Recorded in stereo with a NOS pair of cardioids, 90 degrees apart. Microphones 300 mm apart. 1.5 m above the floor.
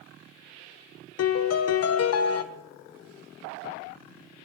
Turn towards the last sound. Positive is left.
turn(degrees=50)